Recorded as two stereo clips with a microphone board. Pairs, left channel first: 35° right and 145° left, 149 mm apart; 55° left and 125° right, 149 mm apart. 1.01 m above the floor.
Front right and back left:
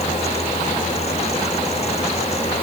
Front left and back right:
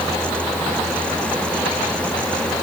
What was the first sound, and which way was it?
Only background noise.